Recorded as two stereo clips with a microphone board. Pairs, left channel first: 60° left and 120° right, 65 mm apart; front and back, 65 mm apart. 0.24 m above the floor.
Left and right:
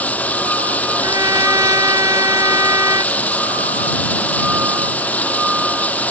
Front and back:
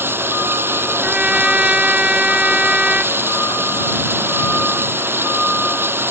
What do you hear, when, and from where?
0.0 s running water: 125° left
1.0 s a trumpet: 105° right